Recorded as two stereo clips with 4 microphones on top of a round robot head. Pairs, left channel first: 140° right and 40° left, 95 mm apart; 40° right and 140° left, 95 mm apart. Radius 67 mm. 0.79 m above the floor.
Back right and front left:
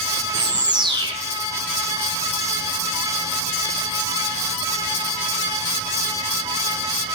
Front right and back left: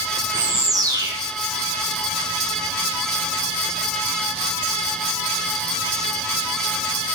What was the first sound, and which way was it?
A bird, 85° left.